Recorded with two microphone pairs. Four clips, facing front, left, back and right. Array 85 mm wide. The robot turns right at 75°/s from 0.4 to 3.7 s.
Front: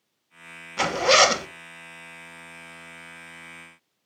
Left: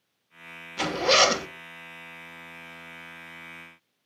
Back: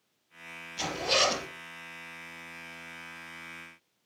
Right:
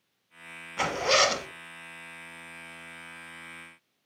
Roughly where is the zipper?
Ahead.